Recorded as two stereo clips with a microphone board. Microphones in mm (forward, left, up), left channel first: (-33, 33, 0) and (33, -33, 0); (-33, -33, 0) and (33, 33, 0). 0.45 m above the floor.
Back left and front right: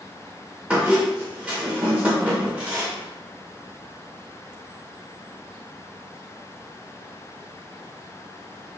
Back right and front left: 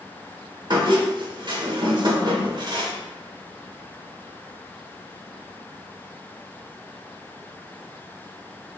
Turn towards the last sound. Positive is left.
turn(degrees=35)